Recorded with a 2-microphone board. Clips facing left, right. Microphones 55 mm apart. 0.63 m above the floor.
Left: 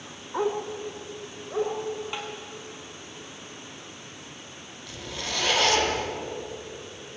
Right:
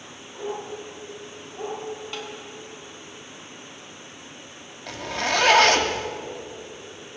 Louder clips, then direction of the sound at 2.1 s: Even; 20° left (ahead or behind).